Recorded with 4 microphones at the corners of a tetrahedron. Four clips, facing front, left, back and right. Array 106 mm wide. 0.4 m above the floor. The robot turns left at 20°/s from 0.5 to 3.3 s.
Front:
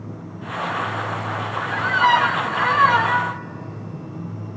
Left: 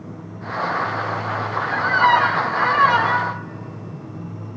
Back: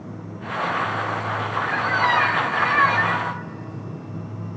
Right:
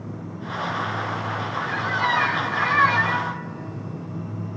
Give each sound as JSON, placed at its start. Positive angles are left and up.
{"t": 1.7, "sound": "a squeak", "azimuth_deg": 65, "distance_m": 1.0}